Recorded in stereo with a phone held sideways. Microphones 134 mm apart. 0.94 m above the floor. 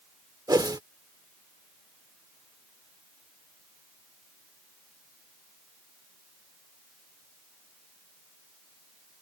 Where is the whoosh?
30° right (ahead or behind).